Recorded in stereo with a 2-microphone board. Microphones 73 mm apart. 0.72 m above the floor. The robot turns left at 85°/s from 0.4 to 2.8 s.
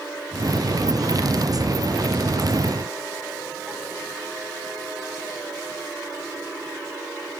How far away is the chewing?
No chewing in this recording.